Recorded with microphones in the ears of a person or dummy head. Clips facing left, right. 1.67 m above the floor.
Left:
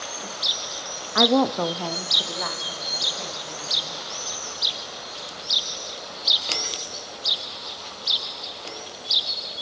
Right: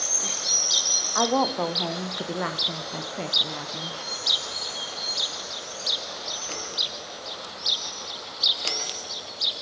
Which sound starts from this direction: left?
A woman speaking, at 1.1 s.